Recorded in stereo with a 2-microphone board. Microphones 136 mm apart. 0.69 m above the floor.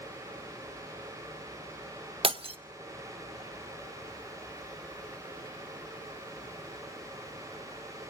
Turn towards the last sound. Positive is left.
turn(degrees=-40)  # may be behind; listen again after turning